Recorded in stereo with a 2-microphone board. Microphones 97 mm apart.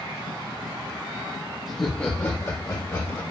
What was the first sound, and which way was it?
Laughter, centre (ahead or behind).